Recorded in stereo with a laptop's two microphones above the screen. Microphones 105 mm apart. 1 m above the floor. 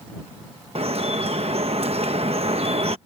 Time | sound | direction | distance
0.8 | dripping | 60° right (ahead or behind) | ?